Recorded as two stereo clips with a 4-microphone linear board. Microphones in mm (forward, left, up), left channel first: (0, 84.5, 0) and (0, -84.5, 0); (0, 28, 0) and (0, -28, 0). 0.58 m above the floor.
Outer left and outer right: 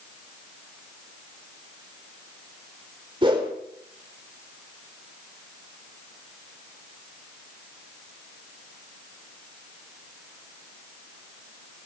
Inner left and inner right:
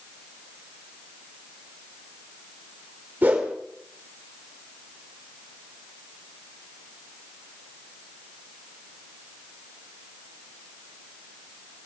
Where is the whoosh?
30° right (ahead or behind), 2.5 m.